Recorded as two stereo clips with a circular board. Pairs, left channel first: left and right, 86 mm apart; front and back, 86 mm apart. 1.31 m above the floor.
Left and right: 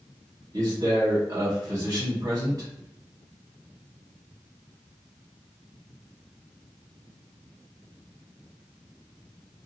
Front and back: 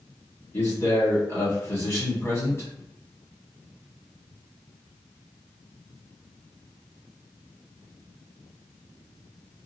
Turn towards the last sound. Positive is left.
turn(degrees=-55)